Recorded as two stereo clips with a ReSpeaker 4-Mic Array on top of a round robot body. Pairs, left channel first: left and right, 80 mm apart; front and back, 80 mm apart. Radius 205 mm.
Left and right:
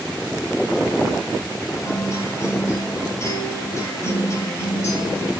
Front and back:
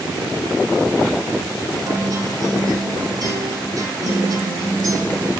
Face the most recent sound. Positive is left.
turn(degrees=145)